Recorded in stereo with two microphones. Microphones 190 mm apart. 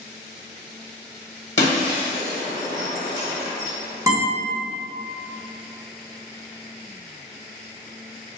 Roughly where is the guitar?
Centre.